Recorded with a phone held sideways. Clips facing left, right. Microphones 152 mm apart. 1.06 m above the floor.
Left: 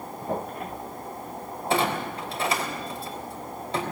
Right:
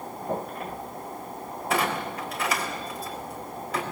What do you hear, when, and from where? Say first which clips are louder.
1.7 s a clunk: left 2 dB; 25° left (ahead or behind), 3.5 m